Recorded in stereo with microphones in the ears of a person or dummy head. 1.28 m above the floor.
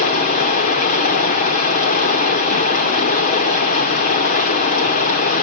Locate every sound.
0.0 s running water: 35° left (ahead or behind), 1.3 m